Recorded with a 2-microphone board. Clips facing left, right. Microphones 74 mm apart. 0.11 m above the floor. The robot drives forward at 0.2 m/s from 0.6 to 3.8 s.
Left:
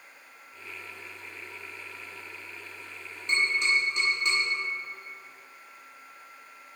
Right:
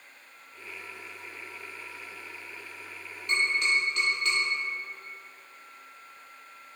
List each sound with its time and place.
3.3 s tapping: 25° left (ahead or behind), 1.5 m; by 4.4 s 20° left (ahead or behind), 1.6 m